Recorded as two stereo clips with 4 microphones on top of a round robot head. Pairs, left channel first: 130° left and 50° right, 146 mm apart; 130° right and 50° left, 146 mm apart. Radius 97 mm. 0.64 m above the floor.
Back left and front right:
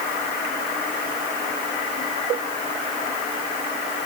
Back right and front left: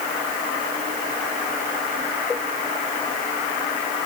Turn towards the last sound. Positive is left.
No sound to turn to.